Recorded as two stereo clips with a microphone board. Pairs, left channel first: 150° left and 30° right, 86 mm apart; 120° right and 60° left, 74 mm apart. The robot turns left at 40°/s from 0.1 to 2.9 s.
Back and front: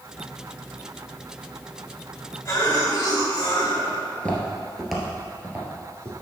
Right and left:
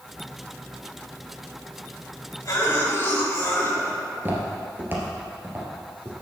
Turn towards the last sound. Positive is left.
turn(degrees=10)